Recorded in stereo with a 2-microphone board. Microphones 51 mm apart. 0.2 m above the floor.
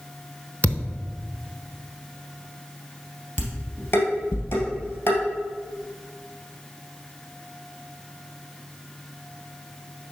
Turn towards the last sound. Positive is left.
turn(degrees=60)  # may be behind; listen again after turning